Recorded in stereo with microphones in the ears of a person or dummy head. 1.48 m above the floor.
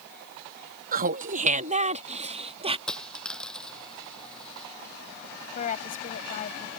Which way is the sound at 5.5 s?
45° left (ahead or behind).